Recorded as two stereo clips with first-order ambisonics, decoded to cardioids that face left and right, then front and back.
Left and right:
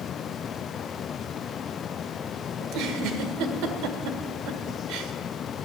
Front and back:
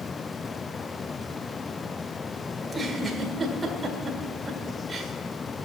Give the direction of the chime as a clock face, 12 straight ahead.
I don't hear a chime.